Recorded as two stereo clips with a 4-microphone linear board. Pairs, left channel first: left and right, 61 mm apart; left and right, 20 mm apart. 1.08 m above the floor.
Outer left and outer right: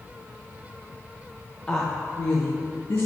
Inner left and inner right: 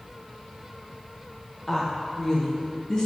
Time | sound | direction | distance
1.7 | a woman speaking | 10° left (ahead or behind) | 0.7 m